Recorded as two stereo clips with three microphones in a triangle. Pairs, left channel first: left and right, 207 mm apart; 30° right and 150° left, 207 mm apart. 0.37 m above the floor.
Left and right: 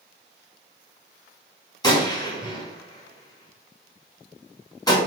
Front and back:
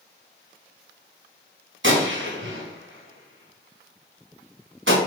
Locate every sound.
1.8 s a gunshot: 160° left, 3 m